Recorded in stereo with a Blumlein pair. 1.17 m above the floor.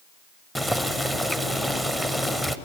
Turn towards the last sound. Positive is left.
turn(degrees=5)